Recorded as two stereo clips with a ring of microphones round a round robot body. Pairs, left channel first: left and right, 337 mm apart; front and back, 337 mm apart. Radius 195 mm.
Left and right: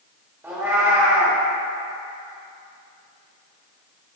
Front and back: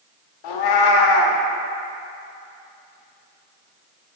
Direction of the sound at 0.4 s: 5° right.